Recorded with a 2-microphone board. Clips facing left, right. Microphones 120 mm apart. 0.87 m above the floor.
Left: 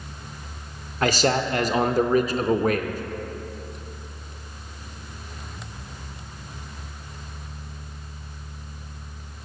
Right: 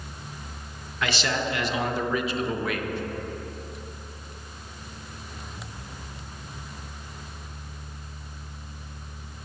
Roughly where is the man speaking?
Left.